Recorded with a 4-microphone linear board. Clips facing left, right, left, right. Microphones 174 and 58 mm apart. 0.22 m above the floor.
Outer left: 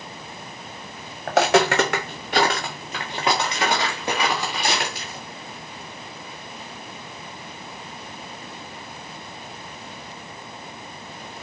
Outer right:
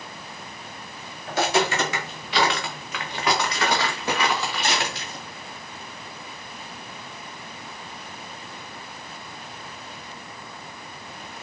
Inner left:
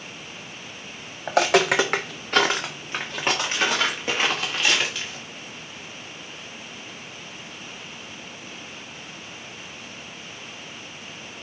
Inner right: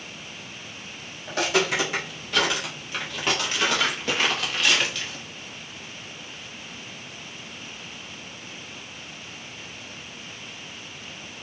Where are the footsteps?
80° left, 0.9 m; by 5.2 s 5° left (ahead or behind), 2.5 m.